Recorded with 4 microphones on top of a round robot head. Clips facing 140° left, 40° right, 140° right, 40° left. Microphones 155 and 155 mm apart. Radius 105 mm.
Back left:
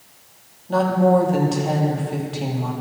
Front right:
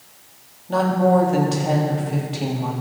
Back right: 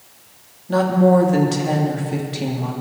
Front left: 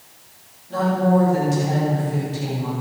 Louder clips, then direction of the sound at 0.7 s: Back left 1 dB, back right 4 dB; 125° right.